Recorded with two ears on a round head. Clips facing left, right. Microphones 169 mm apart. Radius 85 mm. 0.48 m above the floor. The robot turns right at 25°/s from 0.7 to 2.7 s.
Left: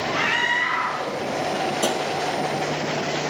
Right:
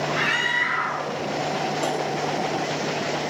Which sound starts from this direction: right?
A scream, at 0.1 s.